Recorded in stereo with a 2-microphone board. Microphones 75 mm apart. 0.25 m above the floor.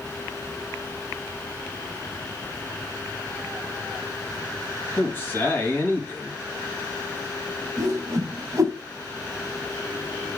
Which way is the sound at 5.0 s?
25° left (ahead or behind).